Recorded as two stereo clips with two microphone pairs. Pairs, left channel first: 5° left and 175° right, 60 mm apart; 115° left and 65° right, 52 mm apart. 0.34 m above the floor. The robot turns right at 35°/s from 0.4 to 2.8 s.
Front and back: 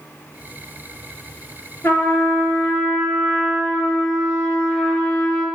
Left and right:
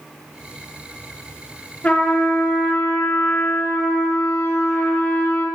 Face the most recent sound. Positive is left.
turn(degrees=85)